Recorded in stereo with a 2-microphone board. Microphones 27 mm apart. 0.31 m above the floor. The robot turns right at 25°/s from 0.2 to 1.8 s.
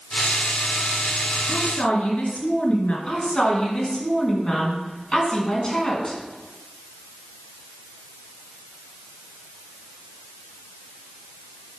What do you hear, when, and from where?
1.5 s a woman speaking: 55° left (ahead or behind), 2.5 m
3.1 s a woman speaking: 25° left (ahead or behind), 3.5 m